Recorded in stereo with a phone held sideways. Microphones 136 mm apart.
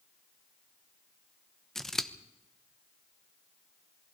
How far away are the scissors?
About 1.0 m.